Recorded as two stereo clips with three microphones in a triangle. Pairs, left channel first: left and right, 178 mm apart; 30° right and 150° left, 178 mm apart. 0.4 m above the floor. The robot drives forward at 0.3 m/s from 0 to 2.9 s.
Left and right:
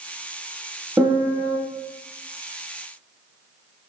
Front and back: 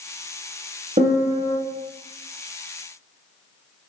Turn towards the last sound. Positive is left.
turn(degrees=-170)